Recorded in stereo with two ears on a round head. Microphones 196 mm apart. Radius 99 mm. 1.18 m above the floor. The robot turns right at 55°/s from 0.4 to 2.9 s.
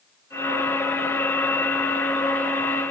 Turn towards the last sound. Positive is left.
No sound to turn to.